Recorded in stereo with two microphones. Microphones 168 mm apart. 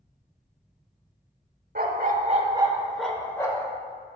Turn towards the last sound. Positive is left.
turn(degrees=25)  # may be behind; listen again after turning